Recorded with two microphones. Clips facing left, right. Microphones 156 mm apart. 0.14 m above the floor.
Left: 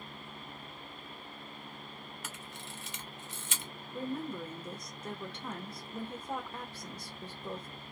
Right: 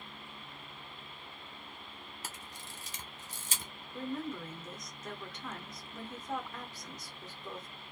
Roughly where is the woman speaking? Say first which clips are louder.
Left 1 dB; left.